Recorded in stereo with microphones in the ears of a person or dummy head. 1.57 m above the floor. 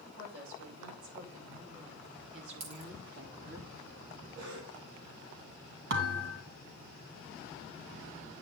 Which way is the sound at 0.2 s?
80° right.